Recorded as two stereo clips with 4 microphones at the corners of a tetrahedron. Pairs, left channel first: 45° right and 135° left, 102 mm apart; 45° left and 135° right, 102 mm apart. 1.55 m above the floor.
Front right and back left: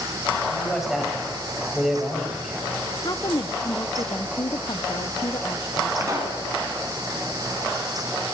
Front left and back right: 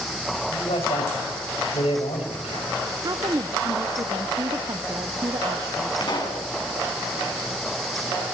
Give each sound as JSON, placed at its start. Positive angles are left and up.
{"t": 0.5, "sound": "a man speaking", "azimuth_deg": 50, "distance_m": 7.0}
{"t": 3.0, "sound": "a woman speaking", "azimuth_deg": -85, "distance_m": 0.8}
{"t": 6.0, "sound": "a pop", "azimuth_deg": 80, "distance_m": 5.5}